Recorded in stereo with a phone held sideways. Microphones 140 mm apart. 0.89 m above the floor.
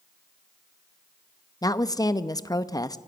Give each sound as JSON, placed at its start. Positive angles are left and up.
{"t": 1.6, "sound": "a woman speaking", "side_deg": 25, "distance_m": 0.7}